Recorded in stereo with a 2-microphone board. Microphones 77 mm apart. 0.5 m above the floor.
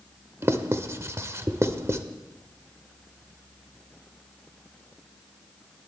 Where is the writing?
35° right (ahead or behind), 0.7 m.